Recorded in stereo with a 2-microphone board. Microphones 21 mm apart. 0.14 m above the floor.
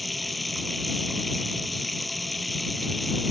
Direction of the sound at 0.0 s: 5° left (ahead or behind).